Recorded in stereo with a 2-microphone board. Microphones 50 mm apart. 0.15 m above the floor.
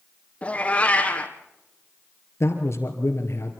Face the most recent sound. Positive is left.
turn(degrees=60)  # may be behind; listen again after turning